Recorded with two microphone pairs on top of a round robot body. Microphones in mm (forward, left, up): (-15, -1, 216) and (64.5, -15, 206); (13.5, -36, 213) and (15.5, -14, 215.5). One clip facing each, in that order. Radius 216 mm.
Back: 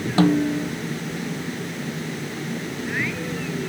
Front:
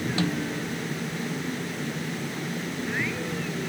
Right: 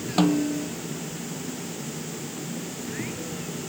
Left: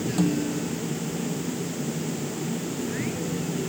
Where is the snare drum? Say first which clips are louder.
Back 14 dB, right 4 dB; 140° right.